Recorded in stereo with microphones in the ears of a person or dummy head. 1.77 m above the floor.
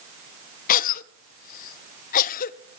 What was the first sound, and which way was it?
A cough, 50° left (ahead or behind).